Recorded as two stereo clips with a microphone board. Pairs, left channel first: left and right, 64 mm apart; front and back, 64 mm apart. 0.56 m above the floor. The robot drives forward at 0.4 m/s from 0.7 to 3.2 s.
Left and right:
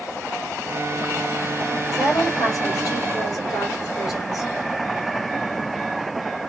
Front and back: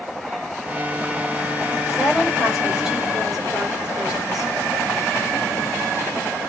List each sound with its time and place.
1.9 s a woman speaking: 80° left, 3 m; by 4.5 s 95° left, 3 m